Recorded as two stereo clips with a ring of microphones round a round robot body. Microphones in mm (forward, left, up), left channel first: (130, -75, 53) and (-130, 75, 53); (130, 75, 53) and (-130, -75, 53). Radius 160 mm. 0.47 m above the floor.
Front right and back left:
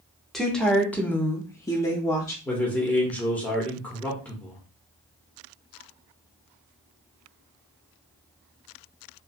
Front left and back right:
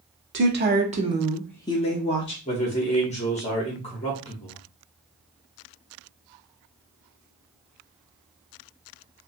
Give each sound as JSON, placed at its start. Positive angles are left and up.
{"t": 0.3, "sound": "a woman speaking", "azimuth_deg": -120, "distance_m": 1.0}
{"t": 2.5, "sound": "a man speaking", "azimuth_deg": 45, "distance_m": 1.1}